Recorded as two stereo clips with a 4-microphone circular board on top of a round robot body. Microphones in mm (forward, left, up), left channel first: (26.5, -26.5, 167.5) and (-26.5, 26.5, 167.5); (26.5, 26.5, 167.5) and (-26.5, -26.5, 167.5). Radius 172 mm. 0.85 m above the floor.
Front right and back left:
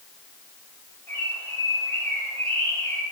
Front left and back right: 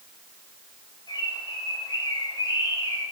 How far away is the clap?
No clap in this recording.